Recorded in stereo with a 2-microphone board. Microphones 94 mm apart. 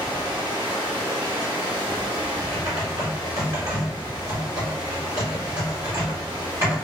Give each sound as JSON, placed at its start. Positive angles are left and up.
{"t": 0.0, "sound": "running water", "side_deg": -60, "distance_m": 1.1}
{"t": 2.5, "sound": "typing on a keyboard", "side_deg": -40, "distance_m": 1.6}